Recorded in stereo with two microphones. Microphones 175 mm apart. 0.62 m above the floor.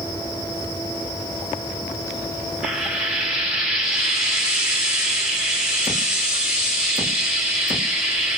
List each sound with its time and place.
2.6 s frying: 5° right (ahead or behind), 1.4 m